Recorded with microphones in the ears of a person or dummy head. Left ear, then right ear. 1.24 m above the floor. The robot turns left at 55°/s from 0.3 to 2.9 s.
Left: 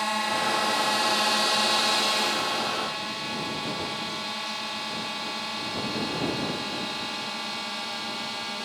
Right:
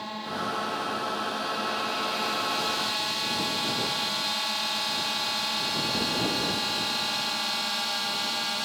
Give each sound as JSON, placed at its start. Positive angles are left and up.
{"t": 0.0, "sound": "a drone", "azimuth_deg": 115}